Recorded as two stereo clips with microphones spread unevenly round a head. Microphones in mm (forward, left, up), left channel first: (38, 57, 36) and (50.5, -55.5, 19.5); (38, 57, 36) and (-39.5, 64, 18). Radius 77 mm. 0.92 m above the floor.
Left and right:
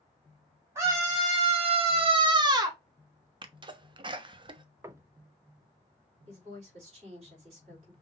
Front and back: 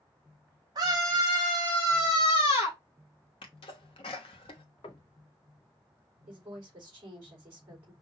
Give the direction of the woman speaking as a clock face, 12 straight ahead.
4 o'clock.